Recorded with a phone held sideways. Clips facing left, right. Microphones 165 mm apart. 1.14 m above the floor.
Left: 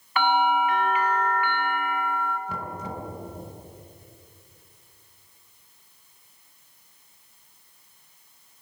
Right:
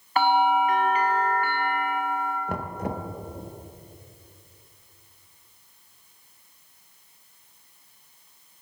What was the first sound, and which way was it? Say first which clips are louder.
A bell: right 2 dB; 40° right (ahead or behind).